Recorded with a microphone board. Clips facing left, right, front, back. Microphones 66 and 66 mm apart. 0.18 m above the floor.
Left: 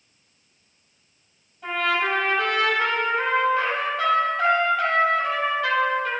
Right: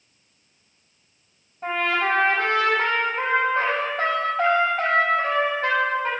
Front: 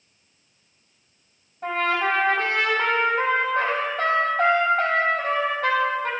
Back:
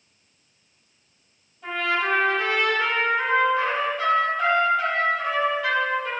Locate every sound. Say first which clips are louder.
1.6 s a trumpet: right 1 dB, front 2 dB; 40° right, 4 m